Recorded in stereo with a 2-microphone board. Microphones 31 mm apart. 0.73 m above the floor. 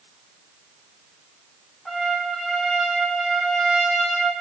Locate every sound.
1.9 s a trumpet: 5° left (ahead or behind), 1.3 m